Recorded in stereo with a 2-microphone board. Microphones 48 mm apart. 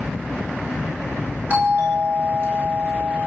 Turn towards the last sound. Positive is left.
turn(degrees=-40)  # may be behind; listen again after turning